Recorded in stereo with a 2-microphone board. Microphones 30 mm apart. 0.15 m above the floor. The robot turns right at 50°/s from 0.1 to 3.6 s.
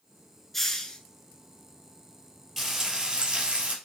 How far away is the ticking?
No ticking in this recording.